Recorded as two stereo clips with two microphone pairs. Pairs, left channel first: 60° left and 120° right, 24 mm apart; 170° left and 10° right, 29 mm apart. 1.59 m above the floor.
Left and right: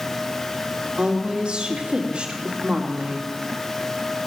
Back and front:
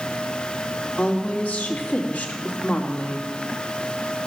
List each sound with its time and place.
1.0 s a woman speaking: 170° right, 2.5 m